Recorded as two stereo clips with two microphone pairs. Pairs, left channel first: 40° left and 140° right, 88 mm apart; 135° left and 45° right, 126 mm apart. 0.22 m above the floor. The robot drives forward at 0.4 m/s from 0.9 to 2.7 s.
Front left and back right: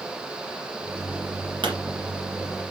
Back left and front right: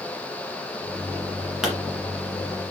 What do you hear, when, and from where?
1.6 s a pop: 130° right, 2 m